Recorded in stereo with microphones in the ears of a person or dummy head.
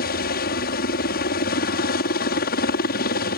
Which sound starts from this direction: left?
A helicopter, at 0.0 s.